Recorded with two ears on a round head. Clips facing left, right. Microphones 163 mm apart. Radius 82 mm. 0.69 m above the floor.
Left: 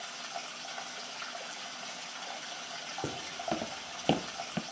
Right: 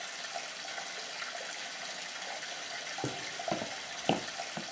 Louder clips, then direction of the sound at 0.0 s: Even; 20° right (ahead or behind).